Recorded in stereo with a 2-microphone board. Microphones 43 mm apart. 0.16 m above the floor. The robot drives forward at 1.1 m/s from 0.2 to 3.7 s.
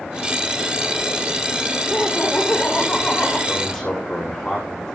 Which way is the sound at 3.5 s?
15° left (ahead or behind).